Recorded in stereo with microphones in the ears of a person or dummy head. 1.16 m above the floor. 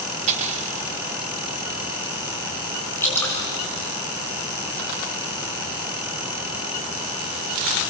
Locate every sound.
0.3 s cutlery clinking: 45° right (ahead or behind), 2.5 m
3.0 s dripping: 20° left (ahead or behind), 6.5 m